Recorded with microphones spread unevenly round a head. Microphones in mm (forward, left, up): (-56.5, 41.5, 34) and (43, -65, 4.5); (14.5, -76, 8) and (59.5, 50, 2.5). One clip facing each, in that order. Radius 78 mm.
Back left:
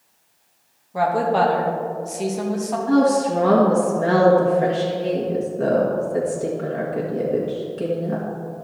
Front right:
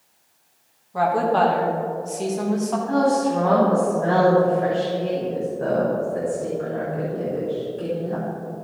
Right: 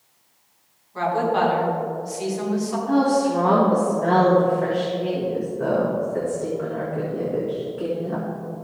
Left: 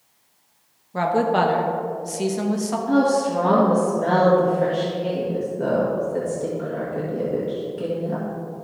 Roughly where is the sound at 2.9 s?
Behind left.